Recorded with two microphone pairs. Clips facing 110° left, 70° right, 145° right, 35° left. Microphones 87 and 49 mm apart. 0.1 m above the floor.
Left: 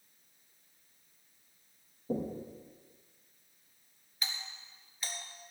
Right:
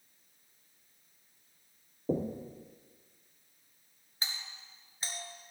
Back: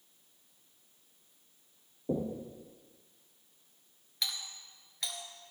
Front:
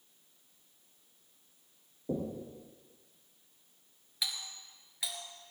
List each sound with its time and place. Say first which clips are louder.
2.1 s knocking: right 2 dB, back 2 dB; 70° right, 3.5 m
4.2 s a doorbell: even, even; 50° right, 1.9 m